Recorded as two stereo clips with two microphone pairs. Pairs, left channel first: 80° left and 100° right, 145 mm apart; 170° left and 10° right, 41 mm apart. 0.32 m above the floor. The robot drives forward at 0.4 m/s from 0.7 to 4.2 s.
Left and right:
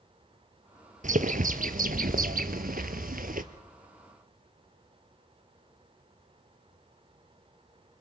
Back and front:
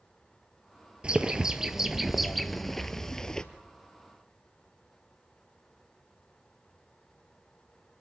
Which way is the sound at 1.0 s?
70° right.